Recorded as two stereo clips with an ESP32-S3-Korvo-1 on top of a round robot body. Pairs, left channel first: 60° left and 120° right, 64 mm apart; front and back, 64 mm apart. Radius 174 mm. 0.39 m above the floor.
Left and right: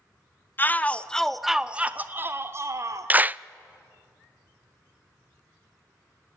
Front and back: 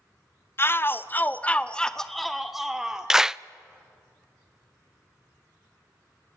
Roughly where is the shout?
Ahead.